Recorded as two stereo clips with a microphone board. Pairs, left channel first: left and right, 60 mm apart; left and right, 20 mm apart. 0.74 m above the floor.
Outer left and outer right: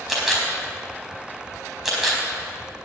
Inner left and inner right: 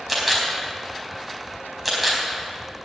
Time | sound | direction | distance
0.1 | a camera shutter | 5° right (ahead or behind) | 4 m